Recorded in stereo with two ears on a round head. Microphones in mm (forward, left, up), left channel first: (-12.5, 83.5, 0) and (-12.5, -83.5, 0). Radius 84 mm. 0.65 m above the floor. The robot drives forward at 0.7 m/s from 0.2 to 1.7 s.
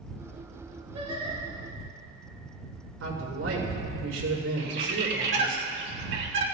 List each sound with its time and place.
0.9 s singing: 30° right (ahead or behind), 6 m
3.0 s a man speaking: 85° right, 6 m
4.6 s a bird: 65° right (ahead or behind), 2 m